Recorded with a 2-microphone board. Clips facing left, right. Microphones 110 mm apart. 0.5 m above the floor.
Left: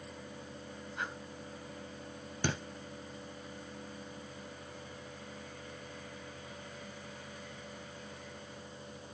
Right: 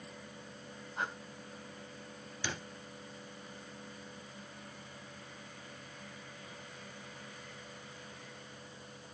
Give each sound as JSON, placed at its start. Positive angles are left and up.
{"t": 1.0, "sound": "breathing", "side_deg": -30, "distance_m": 2.0}
{"t": 2.4, "sound": "a thud", "side_deg": 50, "distance_m": 1.8}